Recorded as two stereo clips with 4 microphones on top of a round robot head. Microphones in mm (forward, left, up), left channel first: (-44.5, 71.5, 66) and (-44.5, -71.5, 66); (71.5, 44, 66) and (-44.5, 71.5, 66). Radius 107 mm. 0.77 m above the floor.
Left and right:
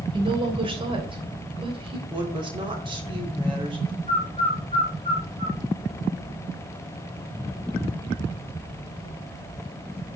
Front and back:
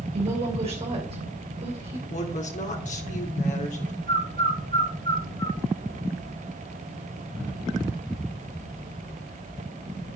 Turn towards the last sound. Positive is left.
turn(degrees=-55)